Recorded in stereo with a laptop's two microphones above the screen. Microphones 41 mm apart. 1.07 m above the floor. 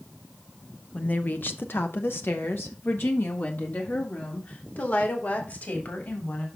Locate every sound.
0.9 s a woman speaking: 40° left (ahead or behind), 0.8 m; by 6.5 s 55° left (ahead or behind), 3.5 m